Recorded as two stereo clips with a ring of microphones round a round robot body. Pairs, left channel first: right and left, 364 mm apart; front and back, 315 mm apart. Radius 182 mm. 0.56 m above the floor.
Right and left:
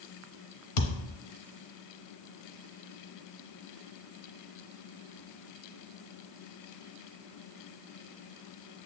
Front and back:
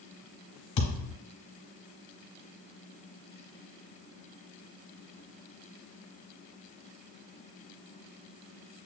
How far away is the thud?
About 0.6 m.